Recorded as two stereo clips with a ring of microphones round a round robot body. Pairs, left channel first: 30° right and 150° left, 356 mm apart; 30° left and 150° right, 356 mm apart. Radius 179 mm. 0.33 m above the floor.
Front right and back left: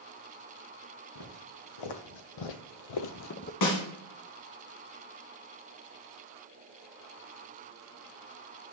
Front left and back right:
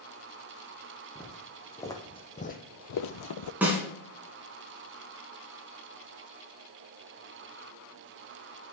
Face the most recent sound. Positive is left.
turn(degrees=-65)